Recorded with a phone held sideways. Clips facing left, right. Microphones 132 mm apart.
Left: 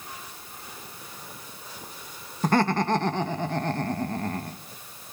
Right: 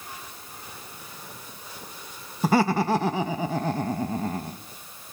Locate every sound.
2.4 s laughter: 5° right (ahead or behind), 1.0 m